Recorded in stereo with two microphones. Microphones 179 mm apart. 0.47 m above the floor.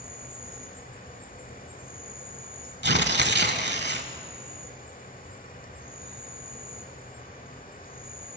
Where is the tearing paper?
70° right (ahead or behind), 0.8 m.